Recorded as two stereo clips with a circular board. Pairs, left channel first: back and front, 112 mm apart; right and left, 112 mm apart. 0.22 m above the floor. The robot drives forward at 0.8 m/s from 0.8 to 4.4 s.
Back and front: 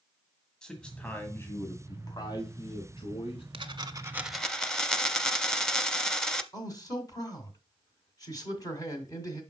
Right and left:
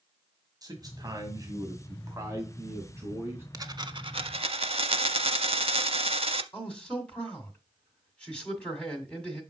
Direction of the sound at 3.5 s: 35° left.